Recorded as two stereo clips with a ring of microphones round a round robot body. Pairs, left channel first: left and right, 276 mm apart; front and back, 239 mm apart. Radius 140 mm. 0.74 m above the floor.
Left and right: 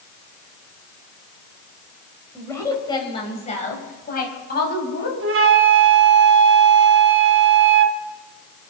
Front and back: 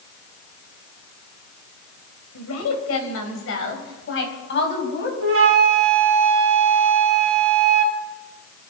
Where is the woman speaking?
10° left, 4 m; by 5.1 s 40° left, 5.5 m.